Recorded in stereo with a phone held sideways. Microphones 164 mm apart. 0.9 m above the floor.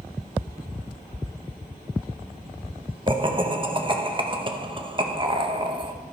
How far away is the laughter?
About 0.9 m.